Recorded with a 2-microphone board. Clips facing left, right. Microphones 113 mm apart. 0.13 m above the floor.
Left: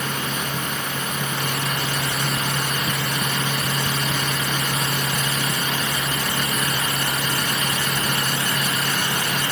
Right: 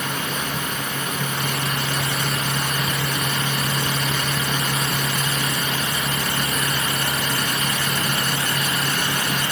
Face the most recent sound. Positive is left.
No sound to turn to.